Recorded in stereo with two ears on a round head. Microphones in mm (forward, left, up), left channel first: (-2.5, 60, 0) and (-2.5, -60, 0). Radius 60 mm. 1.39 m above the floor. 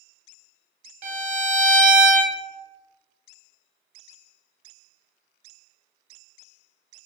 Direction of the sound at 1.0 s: 55° right (ahead or behind).